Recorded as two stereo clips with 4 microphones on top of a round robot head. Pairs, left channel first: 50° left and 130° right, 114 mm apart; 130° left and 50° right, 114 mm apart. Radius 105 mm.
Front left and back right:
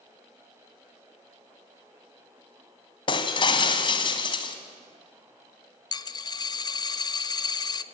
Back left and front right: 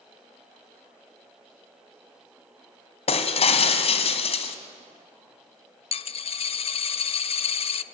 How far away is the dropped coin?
About 0.7 m.